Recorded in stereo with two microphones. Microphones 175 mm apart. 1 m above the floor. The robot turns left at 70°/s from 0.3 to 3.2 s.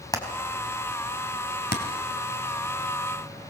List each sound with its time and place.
0.1 s hammering: 20° left (ahead or behind), 3.5 m; by 1.8 s 50° left (ahead or behind), 3.5 m